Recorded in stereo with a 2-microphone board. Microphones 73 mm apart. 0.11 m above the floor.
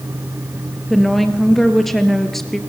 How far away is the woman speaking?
About 1.9 m.